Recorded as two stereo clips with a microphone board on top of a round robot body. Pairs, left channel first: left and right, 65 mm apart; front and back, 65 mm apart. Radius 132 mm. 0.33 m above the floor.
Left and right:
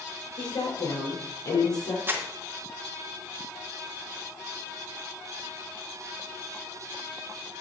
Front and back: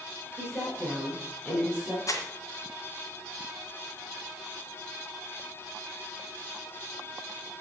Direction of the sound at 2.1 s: 35° right.